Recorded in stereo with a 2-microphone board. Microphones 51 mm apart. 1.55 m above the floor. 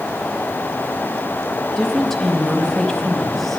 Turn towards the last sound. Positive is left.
turn(degrees=5)  # may be behind; listen again after turning